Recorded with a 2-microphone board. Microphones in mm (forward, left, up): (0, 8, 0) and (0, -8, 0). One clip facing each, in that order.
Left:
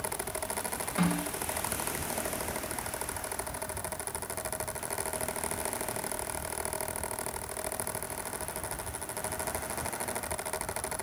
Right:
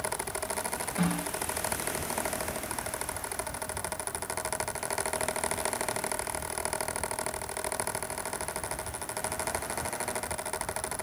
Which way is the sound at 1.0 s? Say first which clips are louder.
Left 1 dB; 30° left (ahead or behind).